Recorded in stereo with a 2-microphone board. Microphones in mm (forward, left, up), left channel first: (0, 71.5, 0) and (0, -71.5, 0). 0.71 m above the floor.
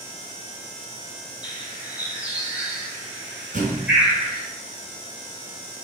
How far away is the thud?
About 3 m.